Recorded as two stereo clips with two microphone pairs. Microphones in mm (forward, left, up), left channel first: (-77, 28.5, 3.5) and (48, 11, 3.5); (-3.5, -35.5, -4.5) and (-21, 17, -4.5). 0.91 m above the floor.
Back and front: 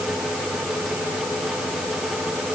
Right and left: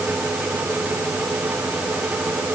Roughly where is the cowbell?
No cowbell in this recording.